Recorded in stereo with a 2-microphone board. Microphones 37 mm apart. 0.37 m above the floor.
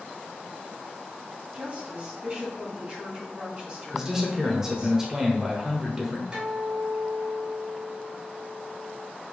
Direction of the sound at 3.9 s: 10° right (ahead or behind).